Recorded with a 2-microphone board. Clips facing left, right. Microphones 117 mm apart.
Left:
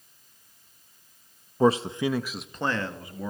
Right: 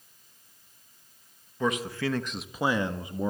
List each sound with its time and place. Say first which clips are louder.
1.6 s a man speaking: left 7 dB; 35° left (ahead or behind), 1.2 m; by 3.3 s 25° right (ahead or behind), 1.9 m